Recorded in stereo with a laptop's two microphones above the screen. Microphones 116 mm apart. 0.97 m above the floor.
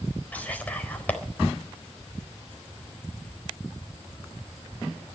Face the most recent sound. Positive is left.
turn(degrees=15)  # may be behind; listen again after turning